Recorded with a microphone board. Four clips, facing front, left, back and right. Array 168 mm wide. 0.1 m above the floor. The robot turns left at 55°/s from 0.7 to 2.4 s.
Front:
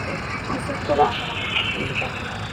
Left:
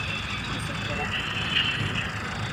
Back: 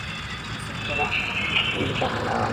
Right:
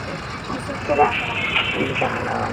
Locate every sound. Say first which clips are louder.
0.0 s a vehicle: right 5 dB, front 7 dB; 35° right; by 2.5 s 130° right